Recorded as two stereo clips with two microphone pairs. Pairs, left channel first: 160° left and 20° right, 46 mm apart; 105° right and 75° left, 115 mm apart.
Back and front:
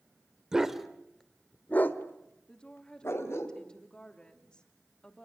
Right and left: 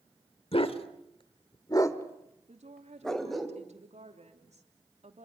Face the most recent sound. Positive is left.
turn(degrees=90)